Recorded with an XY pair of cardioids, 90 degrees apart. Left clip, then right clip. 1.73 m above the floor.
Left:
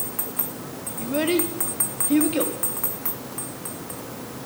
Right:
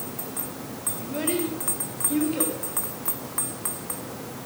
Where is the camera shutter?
I don't hear a camera shutter.